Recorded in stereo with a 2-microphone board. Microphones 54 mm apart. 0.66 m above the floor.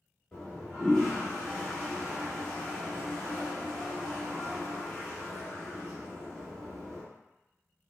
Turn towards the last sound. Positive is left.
turn(degrees=15)  # may be behind; listen again after turning